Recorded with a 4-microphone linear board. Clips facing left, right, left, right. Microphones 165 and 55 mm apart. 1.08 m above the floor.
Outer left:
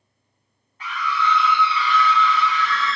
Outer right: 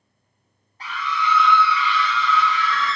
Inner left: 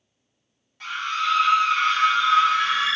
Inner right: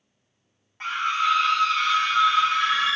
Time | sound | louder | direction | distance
0.8 | a scream | outer left 1 dB, inner right 2 dB | 35° right (ahead or behind) | 0.9 m